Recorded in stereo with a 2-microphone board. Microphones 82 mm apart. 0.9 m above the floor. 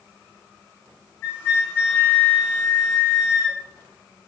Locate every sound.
1.2 s a flute: 25° left (ahead or behind), 1.2 m